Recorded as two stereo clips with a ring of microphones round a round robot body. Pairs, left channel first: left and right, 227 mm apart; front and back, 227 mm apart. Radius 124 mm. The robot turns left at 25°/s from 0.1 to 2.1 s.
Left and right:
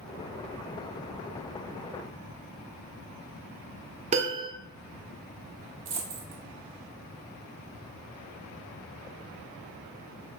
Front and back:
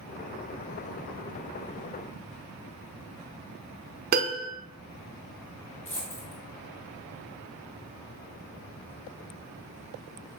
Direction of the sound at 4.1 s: 145° right.